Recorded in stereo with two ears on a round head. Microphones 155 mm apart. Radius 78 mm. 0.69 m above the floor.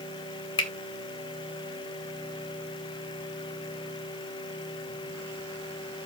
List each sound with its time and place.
0.6 s a finger snap: 25° left (ahead or behind), 1.4 m